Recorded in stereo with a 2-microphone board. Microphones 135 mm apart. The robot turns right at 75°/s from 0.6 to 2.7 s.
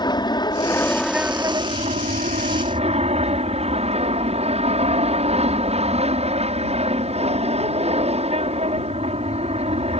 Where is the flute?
I don't hear a flute.